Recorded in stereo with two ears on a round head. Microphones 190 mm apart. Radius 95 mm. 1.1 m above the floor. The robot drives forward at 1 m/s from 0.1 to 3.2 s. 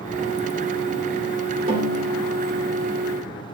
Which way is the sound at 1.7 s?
30° right (ahead or behind).